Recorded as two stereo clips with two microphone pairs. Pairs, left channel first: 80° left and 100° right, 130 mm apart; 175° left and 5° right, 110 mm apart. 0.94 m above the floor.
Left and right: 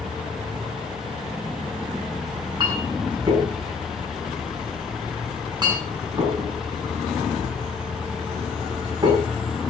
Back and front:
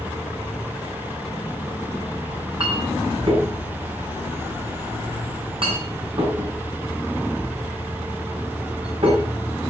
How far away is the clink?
About 7.5 m.